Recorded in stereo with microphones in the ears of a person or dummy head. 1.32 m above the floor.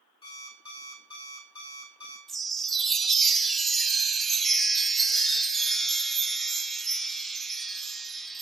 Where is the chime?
10° left (ahead or behind), 0.5 m.